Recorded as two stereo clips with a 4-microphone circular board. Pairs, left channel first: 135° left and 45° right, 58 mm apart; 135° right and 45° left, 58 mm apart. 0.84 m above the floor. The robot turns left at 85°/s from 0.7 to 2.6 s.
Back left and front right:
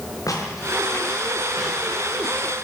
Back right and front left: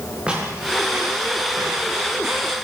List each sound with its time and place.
0.3 s footsteps: 115° left, 9 m; by 2.6 s 45° right, 7.5 m